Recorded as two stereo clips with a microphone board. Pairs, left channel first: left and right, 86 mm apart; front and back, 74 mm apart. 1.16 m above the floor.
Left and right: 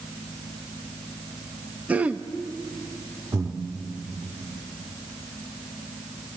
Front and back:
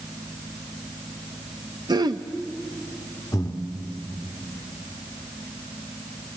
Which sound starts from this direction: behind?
Throat clearing, at 1.9 s.